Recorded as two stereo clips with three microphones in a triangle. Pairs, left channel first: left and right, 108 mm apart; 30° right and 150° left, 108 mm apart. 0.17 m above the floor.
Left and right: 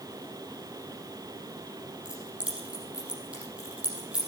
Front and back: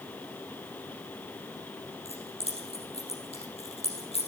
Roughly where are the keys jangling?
Ahead.